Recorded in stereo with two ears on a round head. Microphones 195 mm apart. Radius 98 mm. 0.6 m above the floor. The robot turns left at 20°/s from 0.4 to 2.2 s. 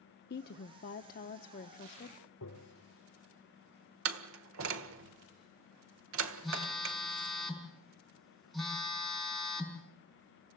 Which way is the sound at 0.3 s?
85° left.